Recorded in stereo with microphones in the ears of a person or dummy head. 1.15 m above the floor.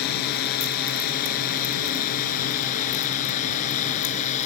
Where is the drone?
55° left (ahead or behind); by 4.5 s 40° left (ahead or behind).